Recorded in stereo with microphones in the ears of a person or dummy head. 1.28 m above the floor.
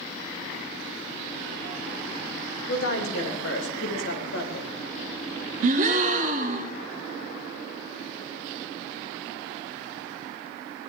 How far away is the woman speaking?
About 3 m.